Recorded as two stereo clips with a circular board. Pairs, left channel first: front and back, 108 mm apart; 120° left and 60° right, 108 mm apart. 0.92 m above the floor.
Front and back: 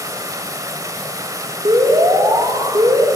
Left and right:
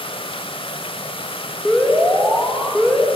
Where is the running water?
130° left, 1.0 m.